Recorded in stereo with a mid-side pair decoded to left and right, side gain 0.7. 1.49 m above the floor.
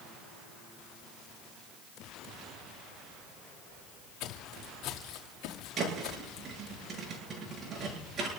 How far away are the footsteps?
About 5.5 m.